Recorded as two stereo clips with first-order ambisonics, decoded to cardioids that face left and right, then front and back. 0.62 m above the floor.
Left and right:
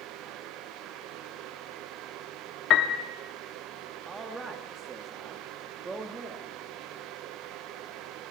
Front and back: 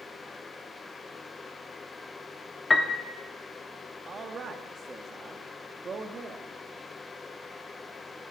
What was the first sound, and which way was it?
A piano, 70° left.